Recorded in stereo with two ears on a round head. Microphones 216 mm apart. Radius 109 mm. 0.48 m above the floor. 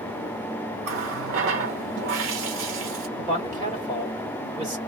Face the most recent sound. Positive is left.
turn(degrees=-30)  # may be behind; listen again after turning